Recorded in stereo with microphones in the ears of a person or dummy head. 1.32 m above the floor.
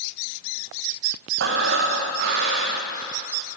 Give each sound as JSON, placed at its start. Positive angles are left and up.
{"t": 1.4, "sound": "breathing", "side_deg": -60, "distance_m": 0.6}